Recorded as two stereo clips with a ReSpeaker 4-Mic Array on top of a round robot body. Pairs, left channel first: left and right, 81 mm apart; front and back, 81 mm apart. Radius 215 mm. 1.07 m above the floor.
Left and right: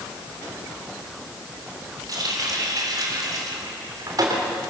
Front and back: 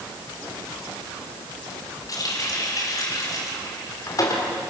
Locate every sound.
2.1 s a running tap: 45° right, 3 m